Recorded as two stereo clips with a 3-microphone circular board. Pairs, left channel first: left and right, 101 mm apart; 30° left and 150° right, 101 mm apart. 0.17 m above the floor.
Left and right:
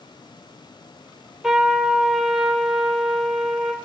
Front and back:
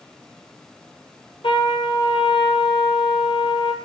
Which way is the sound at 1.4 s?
5° right.